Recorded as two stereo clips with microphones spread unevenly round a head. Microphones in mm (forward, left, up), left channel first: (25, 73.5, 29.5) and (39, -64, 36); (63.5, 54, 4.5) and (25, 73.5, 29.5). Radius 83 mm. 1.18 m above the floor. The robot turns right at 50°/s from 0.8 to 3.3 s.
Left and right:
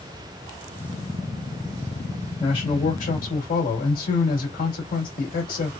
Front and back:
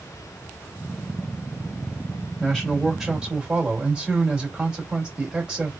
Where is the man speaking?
40° left, 1.7 m; by 5.7 s 85° left, 1.7 m.